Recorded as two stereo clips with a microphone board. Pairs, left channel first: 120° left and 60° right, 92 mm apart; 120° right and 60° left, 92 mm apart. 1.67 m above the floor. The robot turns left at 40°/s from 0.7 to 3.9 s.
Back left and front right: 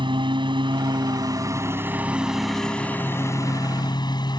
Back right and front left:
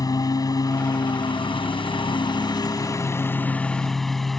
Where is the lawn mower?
80° right; by 4.4 s 155° left.